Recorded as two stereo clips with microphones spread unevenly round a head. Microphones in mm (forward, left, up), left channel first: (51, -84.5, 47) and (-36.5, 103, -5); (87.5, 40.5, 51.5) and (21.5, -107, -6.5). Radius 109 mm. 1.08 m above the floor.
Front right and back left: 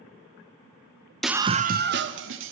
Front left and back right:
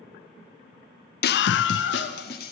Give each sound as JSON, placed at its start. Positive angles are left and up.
{"t": 1.2, "sound": "a scream", "azimuth_deg": 35, "distance_m": 0.8}